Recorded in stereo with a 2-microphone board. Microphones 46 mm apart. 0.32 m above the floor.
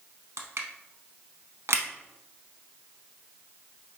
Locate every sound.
0.4 s crushing: 80° right, 0.6 m